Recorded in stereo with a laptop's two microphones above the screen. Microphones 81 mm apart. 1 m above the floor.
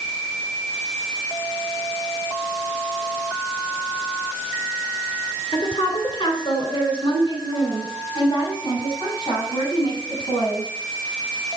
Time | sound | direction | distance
5.5 | a woman speaking | 85° left | 3 m